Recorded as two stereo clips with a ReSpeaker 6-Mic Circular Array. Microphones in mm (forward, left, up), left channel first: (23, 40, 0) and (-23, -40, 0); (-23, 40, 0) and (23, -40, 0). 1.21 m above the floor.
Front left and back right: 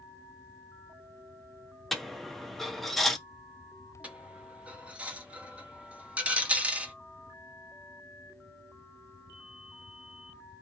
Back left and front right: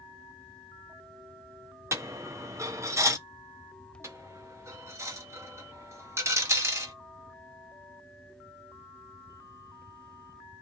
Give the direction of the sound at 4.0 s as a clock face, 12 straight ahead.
2 o'clock.